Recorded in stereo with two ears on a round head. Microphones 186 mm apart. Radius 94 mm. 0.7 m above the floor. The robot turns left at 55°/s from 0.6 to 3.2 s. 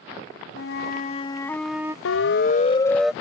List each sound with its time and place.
0.6 s a flute: 60° left; by 1.9 s 15° right
2.0 s a siren: 70° left (ahead or behind); by 3.1 s 5° right (ahead or behind)